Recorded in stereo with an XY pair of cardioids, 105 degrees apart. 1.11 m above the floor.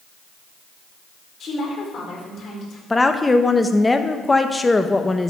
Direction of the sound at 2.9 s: 20° left.